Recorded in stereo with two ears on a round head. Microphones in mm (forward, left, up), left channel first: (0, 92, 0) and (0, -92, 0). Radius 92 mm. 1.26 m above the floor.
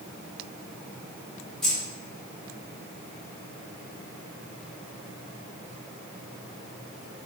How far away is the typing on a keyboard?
No typing on a keyboard in this recording.